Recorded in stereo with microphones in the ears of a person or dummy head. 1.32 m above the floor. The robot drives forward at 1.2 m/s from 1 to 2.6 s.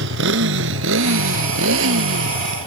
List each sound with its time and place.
0.0 s a motorcycle: 75° right (ahead or behind); by 2.7 s 90° right